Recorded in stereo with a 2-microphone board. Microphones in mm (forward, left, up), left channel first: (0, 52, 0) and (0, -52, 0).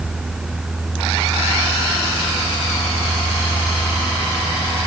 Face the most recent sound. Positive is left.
No sound to turn to.